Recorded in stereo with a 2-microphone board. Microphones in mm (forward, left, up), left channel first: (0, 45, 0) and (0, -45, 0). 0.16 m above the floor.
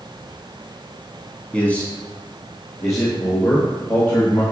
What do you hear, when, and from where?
1.5 s a man speaking: 15° left (ahead or behind), 1.1 m; by 4.4 s 35° left (ahead or behind), 3 m